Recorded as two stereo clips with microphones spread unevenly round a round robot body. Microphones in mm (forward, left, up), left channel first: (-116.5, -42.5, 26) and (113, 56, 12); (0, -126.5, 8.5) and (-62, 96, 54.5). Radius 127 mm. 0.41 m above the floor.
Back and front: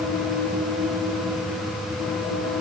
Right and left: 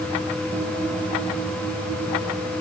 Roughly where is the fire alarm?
I don't hear a fire alarm.